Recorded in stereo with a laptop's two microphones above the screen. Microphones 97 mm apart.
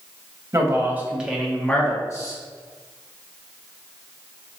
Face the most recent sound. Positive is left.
turn(degrees=40)  # may be behind; listen again after turning